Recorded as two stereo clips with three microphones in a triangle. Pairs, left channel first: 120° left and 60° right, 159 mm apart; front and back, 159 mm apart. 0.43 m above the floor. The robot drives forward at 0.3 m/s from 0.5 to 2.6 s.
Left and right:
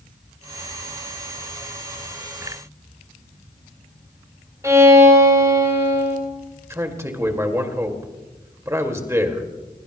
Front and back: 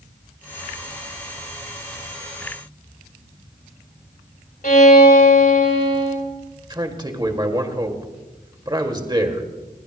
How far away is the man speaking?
About 1.9 m.